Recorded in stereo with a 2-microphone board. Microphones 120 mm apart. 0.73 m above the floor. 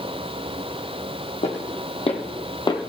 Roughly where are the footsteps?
Left.